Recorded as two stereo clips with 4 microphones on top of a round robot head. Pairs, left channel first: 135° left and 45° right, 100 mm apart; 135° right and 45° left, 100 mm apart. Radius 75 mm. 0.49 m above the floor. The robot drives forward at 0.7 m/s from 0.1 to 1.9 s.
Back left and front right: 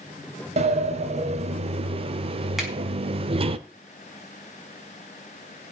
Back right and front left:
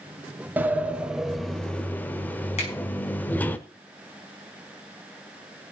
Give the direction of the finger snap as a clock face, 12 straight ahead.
4 o'clock.